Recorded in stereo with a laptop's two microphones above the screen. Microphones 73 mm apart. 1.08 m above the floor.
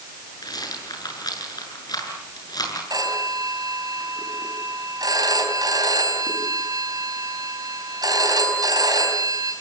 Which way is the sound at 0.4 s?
65° left (ahead or behind).